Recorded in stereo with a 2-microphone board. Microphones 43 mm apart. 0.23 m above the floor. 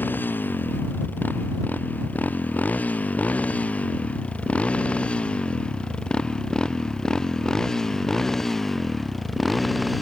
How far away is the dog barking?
I don't hear a dog barking.